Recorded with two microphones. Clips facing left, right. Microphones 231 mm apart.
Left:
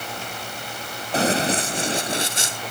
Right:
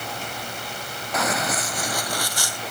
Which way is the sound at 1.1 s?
30° left (ahead or behind).